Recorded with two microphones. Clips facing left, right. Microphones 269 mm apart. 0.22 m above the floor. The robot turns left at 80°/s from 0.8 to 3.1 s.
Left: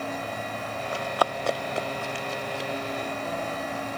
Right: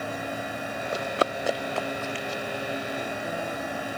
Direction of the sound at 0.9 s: 45° right (ahead or behind).